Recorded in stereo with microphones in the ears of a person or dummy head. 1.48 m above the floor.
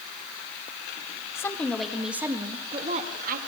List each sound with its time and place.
1.4 s a woman speaking: 20° left (ahead or behind), 2.5 m; by 3.4 s 50° right (ahead or behind), 2.5 m